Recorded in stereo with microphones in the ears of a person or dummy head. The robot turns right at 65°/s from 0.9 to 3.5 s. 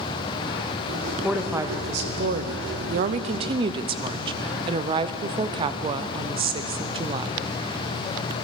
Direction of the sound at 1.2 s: 175° left.